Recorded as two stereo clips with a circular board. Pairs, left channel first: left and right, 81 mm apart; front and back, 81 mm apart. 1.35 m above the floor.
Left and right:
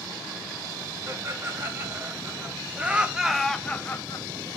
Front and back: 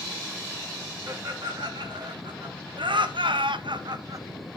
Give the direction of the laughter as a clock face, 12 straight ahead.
5 o'clock.